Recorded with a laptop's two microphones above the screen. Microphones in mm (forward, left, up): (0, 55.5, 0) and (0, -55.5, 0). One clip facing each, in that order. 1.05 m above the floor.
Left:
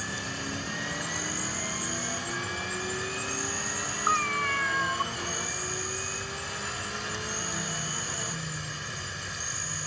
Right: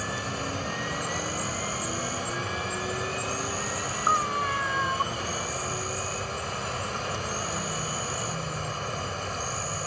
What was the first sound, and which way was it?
An insect, 55° right (ahead or behind).